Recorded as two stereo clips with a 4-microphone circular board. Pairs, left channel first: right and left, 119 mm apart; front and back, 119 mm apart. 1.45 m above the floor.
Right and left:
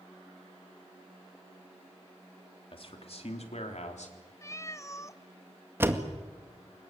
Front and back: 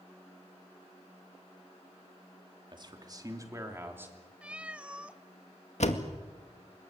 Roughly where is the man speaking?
Behind right.